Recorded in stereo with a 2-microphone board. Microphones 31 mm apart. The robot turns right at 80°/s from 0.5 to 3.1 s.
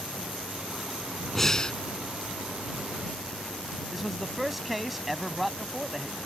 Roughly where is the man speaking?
Centre.